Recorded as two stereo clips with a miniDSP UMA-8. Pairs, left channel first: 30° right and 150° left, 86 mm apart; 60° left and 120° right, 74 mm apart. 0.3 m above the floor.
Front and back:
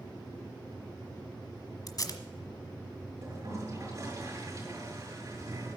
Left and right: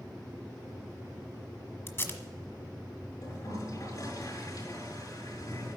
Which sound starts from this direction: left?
A toilet flushing, at 3.2 s.